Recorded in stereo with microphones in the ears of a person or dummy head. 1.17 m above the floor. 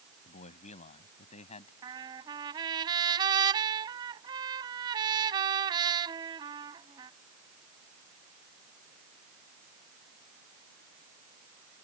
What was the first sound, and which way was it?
A man speaking, 35° left (ahead or behind).